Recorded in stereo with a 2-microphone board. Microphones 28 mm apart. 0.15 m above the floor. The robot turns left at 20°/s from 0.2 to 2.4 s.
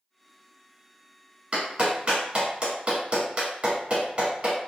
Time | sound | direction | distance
1.5 | a clap | 40° right (ahead or behind) | 1.3 m